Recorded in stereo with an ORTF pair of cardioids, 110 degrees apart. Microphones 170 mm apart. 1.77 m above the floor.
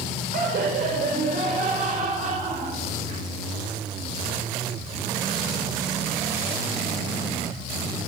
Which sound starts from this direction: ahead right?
Laughter, at 0.3 s.